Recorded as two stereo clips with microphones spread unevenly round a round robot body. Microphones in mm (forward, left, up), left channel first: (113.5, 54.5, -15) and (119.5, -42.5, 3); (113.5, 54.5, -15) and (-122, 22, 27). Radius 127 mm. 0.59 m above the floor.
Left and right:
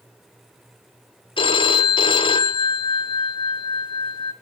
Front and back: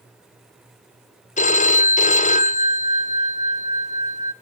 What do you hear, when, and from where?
1.4 s a phone ringing: 65° left, 1.2 m